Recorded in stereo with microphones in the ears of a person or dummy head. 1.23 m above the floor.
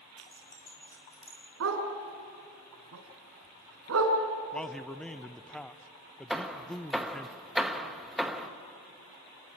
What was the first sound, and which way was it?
Keys jangling, 30° right (ahead or behind).